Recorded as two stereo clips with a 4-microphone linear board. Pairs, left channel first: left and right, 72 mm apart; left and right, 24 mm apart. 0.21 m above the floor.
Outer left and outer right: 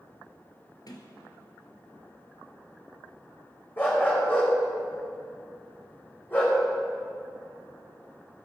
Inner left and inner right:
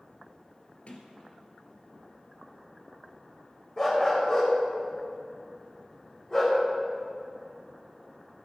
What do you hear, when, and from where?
0.9 s a sliding door: 60° left (ahead or behind), 2 m
3.8 s a dog barking: 30° left (ahead or behind), 6 m